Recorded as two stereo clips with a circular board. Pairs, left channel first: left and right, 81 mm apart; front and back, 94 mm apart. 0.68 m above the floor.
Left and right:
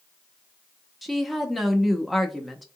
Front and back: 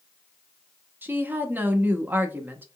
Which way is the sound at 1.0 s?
175° left.